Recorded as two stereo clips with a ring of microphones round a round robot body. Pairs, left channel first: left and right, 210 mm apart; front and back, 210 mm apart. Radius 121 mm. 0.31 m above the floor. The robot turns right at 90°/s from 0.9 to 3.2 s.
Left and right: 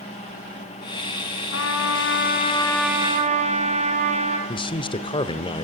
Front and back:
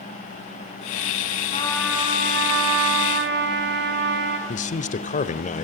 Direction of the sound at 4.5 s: 35° left.